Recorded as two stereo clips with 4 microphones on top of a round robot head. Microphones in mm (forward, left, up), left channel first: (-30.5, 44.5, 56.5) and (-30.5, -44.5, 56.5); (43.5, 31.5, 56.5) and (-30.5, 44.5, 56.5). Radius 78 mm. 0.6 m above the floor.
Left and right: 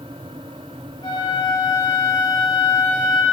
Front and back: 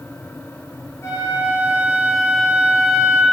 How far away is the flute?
About 7 m.